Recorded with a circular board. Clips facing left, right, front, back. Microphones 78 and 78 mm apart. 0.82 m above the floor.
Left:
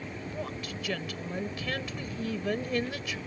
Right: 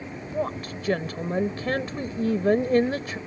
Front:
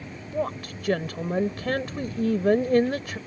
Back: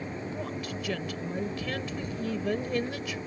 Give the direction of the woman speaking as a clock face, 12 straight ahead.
1 o'clock.